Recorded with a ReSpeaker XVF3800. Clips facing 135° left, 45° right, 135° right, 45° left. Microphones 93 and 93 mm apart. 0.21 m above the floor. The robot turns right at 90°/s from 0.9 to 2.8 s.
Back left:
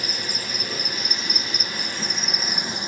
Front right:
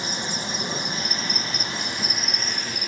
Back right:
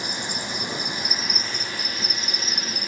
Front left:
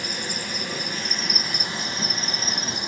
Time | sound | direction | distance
0.0 | an insect | 80° right | 1.1 m